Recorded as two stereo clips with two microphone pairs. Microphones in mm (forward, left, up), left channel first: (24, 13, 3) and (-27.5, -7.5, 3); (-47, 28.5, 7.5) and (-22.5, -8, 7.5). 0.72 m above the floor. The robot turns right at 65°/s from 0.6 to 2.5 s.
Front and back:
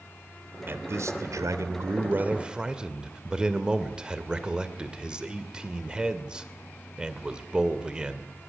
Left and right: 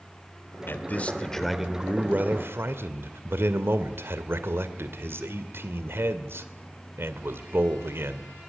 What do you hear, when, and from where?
0.7 s a man speaking: 155° left, 2 m; by 8.3 s 85° right, 2 m